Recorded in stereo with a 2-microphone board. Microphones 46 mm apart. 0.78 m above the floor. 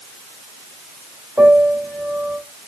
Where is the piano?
40° right (ahead or behind), 3 m.